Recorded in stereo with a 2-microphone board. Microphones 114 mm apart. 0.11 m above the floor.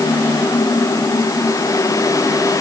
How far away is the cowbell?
No cowbell in this recording.